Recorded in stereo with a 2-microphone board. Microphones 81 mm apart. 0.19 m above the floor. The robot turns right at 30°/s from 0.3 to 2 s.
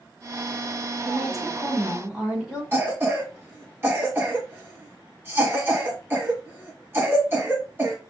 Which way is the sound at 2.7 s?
30° right (ahead or behind).